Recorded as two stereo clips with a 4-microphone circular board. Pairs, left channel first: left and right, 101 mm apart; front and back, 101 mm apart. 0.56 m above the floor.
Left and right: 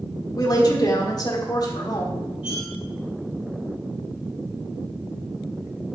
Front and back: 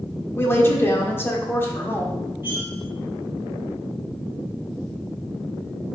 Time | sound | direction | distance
0.4 | a woman speaking | 60° left | 1.6 m
2.4 | cutlery clinking | 105° left | 2.5 m